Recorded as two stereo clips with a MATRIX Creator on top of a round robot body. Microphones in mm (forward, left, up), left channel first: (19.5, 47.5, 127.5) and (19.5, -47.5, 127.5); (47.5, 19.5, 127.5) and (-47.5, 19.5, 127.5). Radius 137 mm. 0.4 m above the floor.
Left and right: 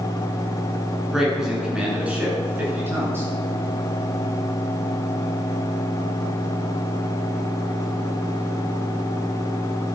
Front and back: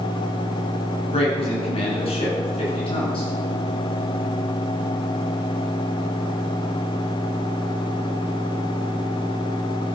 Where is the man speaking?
5° right, 6.5 m; by 3.3 s 25° right, 6.5 m.